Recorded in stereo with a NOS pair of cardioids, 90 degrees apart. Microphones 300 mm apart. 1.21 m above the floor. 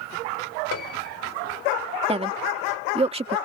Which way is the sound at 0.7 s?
55° left.